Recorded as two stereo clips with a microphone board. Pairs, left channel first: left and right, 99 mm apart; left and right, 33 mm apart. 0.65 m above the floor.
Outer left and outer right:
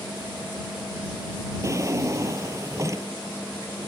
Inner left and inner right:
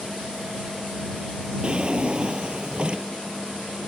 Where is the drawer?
35° right (ahead or behind).